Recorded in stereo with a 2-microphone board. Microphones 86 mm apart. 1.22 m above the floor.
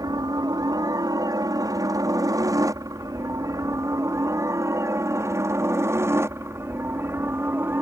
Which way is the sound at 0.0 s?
50° right (ahead or behind).